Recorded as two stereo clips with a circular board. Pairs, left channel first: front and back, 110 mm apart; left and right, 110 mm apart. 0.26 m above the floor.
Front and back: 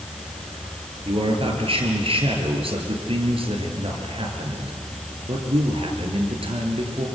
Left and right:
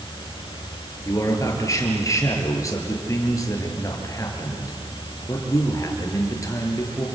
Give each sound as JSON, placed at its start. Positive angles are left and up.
{"t": 1.1, "sound": "a man speaking", "azimuth_deg": 150, "distance_m": 4.5}